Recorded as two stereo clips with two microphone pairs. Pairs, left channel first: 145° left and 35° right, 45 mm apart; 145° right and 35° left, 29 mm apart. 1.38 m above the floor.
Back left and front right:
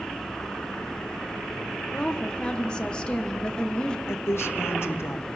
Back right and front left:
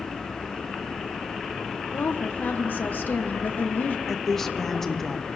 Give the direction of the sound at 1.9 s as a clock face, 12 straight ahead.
5 o'clock.